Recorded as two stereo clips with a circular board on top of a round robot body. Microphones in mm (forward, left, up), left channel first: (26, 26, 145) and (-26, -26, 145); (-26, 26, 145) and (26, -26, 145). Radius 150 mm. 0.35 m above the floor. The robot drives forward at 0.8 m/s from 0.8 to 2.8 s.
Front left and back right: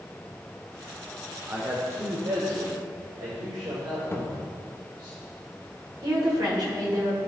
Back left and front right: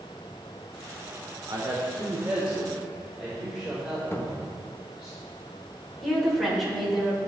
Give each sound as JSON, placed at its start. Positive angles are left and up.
{"t": 1.5, "sound": "a man speaking", "azimuth_deg": -80, "distance_m": 1.3}
{"t": 4.1, "sound": "a cupboard door", "azimuth_deg": 90, "distance_m": 1.2}
{"t": 6.0, "sound": "a woman speaking", "azimuth_deg": -135, "distance_m": 2.0}